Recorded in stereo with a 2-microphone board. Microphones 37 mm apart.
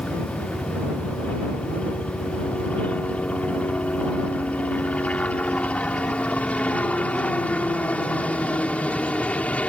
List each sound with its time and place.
0.0 s a helicopter: 35° left (ahead or behind)